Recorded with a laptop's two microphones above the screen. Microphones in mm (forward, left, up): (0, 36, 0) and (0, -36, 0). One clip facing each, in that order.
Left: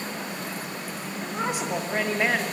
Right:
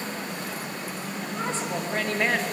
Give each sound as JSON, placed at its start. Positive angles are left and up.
{"t": 1.2, "sound": "a woman speaking", "side_deg": 15, "distance_m": 1.7}